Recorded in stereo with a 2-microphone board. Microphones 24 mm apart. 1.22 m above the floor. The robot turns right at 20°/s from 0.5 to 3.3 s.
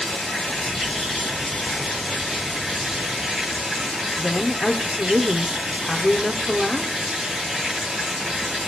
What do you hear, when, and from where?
0.0 s running water: 165° left, 2.5 m; by 8.7 s 140° right, 2.5 m
4.2 s a woman speaking: 5° left (ahead or behind), 0.6 m